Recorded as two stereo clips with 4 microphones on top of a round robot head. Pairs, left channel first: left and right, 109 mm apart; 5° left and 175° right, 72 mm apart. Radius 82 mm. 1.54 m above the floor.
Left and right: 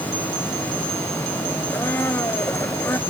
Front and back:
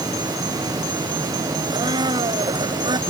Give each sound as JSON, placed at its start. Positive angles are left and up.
{"t": 1.7, "sound": "a blender", "azimuth_deg": 165}